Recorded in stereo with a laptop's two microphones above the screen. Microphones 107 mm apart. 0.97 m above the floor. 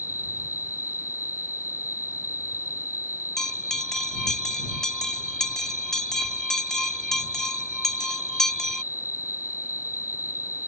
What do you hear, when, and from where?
0.0 s an insect: 20° right (ahead or behind)
3.4 s a bell: 5° left (ahead or behind)